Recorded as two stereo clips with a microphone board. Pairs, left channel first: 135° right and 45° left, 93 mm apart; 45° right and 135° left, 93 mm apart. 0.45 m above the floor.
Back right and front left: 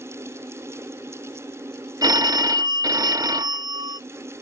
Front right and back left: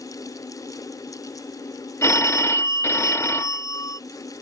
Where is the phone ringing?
10° left.